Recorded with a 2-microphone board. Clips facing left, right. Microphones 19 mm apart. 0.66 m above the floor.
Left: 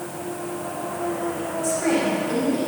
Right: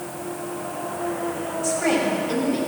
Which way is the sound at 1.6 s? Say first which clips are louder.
Even; 25° right (ahead or behind).